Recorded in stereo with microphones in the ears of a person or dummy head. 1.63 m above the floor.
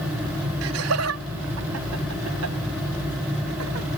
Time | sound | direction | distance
0.6 | laughter | 85° right | ?